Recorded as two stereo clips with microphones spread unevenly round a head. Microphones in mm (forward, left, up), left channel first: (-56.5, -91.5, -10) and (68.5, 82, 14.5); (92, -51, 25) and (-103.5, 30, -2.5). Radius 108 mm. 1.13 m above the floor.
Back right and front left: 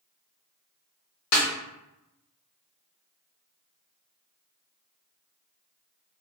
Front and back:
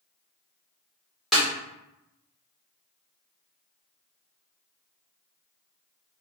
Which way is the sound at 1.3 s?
110° right.